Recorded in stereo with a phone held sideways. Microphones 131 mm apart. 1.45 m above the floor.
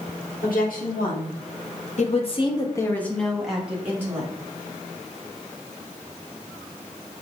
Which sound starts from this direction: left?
A woman speaking, at 0.4 s.